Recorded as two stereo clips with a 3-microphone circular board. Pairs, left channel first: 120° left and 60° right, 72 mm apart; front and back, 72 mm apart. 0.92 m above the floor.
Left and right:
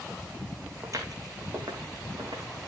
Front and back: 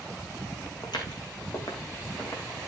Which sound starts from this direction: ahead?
Footsteps, at 0.8 s.